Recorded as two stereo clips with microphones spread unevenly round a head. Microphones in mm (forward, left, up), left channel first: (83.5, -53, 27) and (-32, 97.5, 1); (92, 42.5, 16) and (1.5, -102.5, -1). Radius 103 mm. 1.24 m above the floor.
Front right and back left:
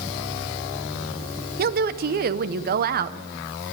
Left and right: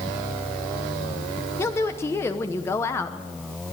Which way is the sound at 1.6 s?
135° left.